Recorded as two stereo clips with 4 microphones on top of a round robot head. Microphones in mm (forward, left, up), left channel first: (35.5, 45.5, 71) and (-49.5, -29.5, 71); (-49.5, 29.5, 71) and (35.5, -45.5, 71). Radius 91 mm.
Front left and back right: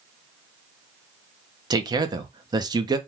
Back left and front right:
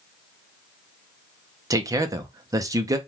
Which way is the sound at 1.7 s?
95° right.